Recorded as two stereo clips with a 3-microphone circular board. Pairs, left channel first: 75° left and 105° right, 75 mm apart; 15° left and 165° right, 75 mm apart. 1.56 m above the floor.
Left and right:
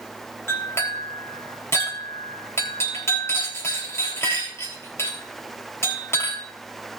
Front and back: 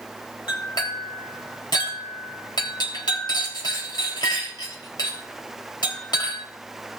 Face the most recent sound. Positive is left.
turn(degrees=20)